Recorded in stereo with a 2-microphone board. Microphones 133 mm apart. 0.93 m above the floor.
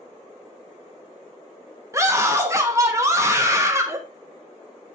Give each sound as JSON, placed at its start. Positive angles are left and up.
{"t": 1.9, "sound": "a scream", "side_deg": -20, "distance_m": 1.2}